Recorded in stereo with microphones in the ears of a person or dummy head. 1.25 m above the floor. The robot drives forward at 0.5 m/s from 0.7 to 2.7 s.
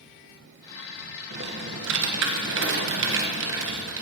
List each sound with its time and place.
1.3 s typing on a keyboard: 60° right (ahead or behind), 1.1 m